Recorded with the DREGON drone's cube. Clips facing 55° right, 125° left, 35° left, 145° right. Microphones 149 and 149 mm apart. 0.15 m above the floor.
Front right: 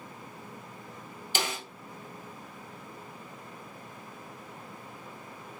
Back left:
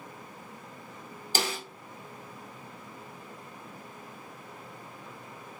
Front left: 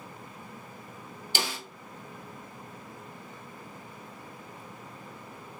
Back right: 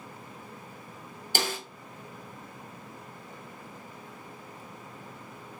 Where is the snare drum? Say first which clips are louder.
Back left 2 dB, back right 3 dB; 175° left, 1.1 m.